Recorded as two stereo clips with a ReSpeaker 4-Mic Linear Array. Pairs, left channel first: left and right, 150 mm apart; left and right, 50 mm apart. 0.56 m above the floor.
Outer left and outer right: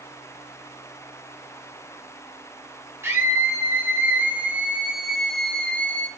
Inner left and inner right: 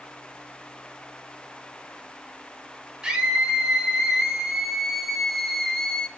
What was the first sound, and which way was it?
A scream, 15° right (ahead or behind).